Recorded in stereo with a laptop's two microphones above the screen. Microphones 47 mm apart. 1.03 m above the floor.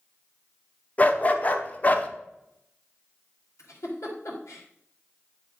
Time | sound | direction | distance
1.0 | a dog barking | 30° left (ahead or behind) | 0.7 m
3.6 | a giggle | 80° left | 2.5 m